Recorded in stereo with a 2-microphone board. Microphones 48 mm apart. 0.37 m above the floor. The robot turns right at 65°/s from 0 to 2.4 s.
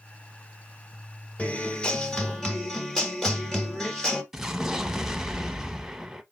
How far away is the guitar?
About 1.1 m.